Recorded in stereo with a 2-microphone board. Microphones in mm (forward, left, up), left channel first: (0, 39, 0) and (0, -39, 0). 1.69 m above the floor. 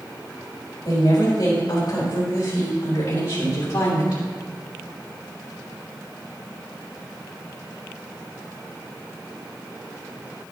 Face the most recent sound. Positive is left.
turn(degrees=60)  # may be behind; listen again after turning